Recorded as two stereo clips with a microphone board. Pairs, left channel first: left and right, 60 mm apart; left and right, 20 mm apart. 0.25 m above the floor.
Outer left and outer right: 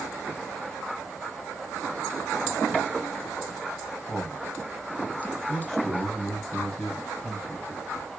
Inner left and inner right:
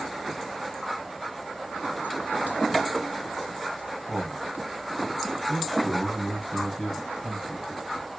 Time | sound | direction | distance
4.1 | a man speaking | 5° left (ahead or behind) | 1.7 m